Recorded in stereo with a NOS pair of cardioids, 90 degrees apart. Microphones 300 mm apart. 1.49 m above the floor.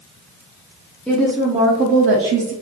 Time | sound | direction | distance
1.1 | a woman speaking | 5° left | 0.8 m